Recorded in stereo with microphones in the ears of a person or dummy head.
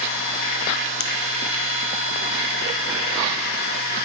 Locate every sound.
0.0 s a machine running: 70° left (ahead or behind), 1.4 m
1.0 s a finger snap: 70° left (ahead or behind), 0.6 m